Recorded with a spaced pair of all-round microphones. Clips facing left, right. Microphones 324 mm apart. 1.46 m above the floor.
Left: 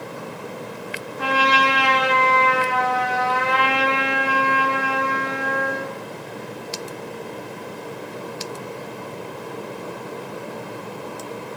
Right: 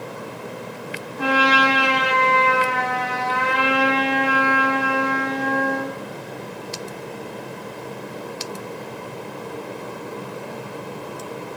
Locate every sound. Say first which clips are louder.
1.2 s a trumpet: right 3 dB; 55° right (ahead or behind), 5 m